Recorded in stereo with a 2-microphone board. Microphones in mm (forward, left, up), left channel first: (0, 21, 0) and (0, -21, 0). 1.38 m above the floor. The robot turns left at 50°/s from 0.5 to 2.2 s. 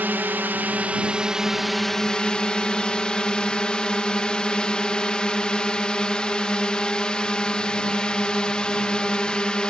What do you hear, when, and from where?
0.0 s a drone: 120° right; by 9.7 s 155° left